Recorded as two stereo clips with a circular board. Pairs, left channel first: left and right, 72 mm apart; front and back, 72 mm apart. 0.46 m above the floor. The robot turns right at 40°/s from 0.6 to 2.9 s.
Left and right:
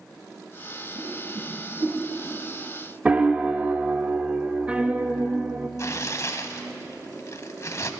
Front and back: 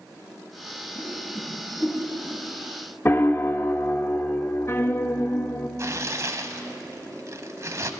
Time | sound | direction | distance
0.9 | a whoosh | 140° right | 5 m
3.0 | a piano | 30° right | 0.5 m
5.8 | tearing paper | 135° left | 0.8 m